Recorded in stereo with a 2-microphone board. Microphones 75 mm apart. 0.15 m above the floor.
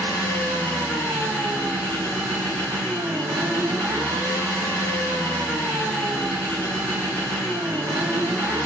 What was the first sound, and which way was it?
An engine running, 85° right.